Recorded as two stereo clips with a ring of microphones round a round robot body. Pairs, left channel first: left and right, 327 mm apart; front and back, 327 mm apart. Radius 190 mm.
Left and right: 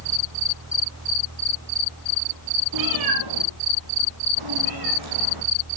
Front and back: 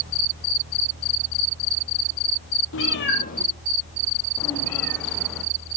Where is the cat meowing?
55° right, 1.8 m; by 5.4 s 90° right, 4 m.